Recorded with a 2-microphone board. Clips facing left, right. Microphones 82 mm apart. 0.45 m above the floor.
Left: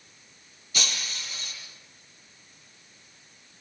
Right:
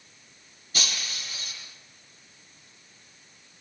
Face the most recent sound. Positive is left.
turn(degrees=-45)  # may be behind; listen again after turning